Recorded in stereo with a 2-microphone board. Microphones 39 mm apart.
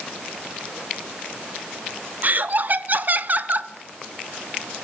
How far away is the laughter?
About 0.6 m.